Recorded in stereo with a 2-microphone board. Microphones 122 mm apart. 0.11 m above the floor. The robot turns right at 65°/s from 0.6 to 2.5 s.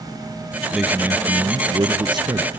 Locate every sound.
0.7 s a man speaking: 175° right, 1.3 m; by 2.5 s 60° right, 1.3 m